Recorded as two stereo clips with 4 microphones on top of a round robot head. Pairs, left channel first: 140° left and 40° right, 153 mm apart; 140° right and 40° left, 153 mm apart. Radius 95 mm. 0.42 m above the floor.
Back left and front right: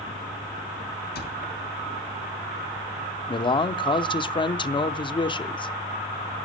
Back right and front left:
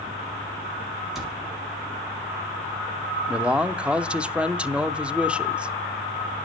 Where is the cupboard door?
130° left, 4.5 m.